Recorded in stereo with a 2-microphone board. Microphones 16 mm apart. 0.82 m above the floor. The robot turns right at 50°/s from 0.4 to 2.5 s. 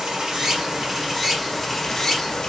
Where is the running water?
60° right, 1.6 m; by 2.5 s 45° left, 1.6 m.